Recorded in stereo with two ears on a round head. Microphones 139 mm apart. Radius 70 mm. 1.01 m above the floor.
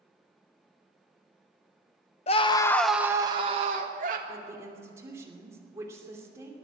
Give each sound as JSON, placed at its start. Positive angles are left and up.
{"t": 2.3, "sound": "a scream", "side_deg": 40, "distance_m": 0.9}
{"t": 4.3, "sound": "a woman speaking", "side_deg": -20, "distance_m": 2.5}